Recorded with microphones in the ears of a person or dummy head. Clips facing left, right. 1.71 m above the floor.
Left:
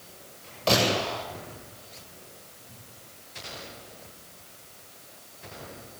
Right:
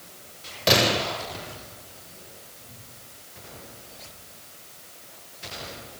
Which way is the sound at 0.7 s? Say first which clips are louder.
Right 2 dB; 20° right (ahead or behind).